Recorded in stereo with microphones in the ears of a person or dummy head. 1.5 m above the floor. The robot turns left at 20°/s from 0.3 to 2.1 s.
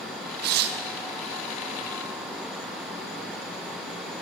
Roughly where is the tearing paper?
Right.